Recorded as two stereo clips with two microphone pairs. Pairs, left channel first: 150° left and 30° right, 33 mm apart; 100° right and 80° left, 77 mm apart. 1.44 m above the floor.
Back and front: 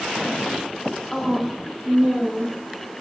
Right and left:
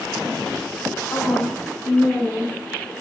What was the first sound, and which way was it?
A woman speaking, 130° right.